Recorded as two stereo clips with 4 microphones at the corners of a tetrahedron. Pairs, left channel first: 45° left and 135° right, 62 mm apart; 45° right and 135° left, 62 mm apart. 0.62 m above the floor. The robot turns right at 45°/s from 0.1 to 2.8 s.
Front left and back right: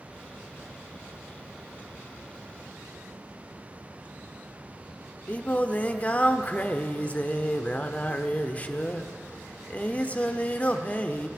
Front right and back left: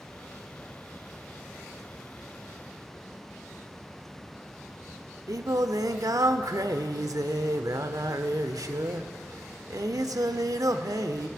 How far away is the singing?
About 0.6 m.